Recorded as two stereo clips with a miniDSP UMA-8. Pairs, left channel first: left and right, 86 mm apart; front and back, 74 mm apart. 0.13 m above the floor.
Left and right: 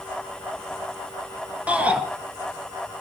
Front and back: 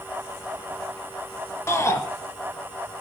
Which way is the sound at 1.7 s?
25° right.